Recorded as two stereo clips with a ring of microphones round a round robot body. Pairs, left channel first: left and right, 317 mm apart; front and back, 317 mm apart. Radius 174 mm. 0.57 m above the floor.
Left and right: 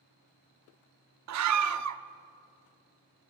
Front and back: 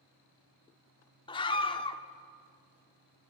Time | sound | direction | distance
1.3 | a scream | 75° right | 1.1 m